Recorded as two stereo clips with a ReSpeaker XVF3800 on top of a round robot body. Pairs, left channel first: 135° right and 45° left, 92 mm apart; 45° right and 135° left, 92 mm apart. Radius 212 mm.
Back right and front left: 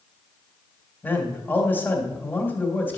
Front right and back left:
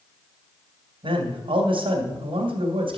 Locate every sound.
1.0 s a man speaking: 155° left, 2.5 m